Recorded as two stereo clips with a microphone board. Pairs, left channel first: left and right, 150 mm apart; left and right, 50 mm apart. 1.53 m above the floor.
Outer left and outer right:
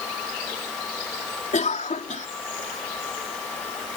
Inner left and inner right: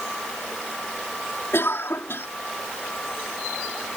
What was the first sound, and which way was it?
A cough, 60° left (ahead or behind).